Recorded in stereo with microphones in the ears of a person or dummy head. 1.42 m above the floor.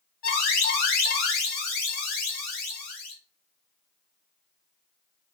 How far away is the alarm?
About 0.9 m.